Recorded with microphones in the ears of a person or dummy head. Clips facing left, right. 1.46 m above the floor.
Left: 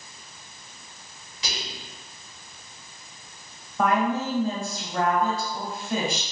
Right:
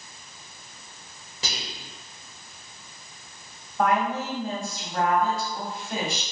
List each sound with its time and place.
1.4 s whispering: 40° right (ahead or behind), 1.6 m
3.8 s a woman speaking: 85° left, 2.0 m